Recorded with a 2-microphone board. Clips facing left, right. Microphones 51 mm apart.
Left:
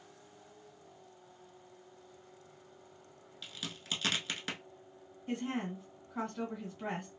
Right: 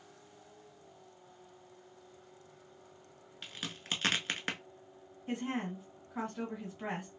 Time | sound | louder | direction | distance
3.4 | a crack | right 2 dB | 40° right (ahead or behind) | 0.7 m
5.3 | a woman speaking | even | 10° right (ahead or behind) | 1.9 m